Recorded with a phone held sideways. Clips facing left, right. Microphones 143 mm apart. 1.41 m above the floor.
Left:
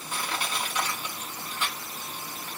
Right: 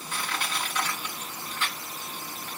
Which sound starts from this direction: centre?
Crushing, at 0.1 s.